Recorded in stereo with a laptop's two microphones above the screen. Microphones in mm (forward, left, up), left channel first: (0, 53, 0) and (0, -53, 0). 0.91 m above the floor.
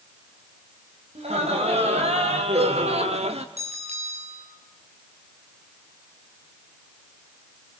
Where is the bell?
80° right, 7.5 m.